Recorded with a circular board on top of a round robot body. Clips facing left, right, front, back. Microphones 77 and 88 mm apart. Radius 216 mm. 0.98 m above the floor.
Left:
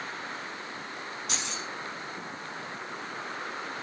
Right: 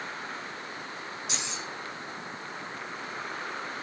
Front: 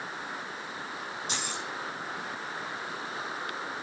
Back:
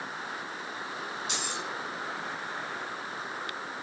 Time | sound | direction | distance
1.3 | keys jangling | 50° left | 8.5 m